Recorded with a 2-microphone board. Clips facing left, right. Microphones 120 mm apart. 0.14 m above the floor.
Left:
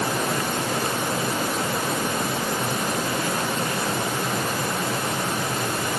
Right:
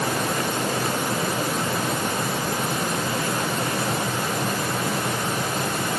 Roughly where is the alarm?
No alarm in this recording.